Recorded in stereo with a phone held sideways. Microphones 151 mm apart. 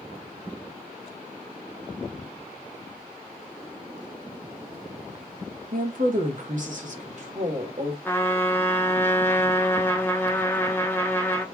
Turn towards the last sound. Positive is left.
turn(degrees=15)  # may be behind; listen again after turning